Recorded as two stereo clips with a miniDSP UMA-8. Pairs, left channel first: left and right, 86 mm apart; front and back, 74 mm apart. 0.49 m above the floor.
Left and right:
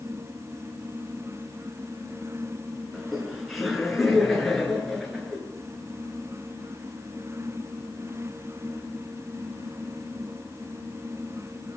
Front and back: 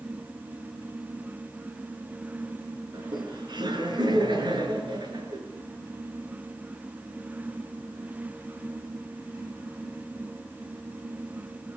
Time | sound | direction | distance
2.9 | laughter | straight behind | 7 m